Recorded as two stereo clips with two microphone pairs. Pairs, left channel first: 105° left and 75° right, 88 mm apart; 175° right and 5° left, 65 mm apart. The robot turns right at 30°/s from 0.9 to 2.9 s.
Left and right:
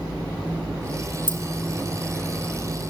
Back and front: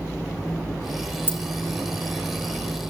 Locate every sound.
1.3 s keys jangling: 45° right, 0.6 m; by 1.4 s 40° right, 0.6 m